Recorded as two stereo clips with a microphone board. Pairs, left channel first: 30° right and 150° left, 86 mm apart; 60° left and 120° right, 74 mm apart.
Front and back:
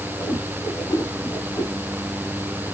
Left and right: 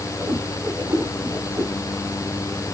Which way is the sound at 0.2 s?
70° right.